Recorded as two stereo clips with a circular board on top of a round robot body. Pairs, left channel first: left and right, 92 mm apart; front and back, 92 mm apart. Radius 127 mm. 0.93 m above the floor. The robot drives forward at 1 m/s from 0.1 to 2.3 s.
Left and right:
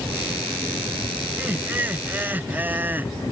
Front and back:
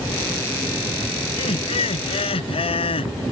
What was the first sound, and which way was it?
Laughter, 20° right.